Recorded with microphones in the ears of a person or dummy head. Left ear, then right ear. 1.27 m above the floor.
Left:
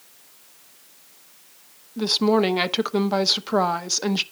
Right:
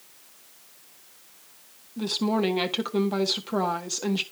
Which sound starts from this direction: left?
A woman speaking, at 2.0 s.